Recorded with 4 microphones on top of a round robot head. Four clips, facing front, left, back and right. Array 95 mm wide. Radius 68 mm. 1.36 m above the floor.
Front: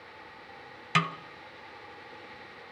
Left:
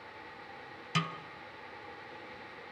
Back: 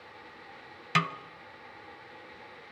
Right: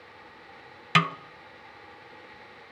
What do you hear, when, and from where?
0.9 s a snare drum: 90° right, 0.8 m